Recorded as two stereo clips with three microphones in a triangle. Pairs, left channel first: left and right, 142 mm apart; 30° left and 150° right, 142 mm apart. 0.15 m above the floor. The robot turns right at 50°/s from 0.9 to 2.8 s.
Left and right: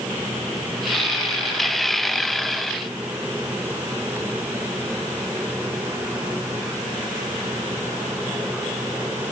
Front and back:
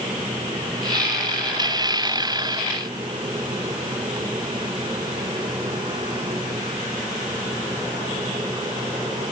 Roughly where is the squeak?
I don't hear a squeak.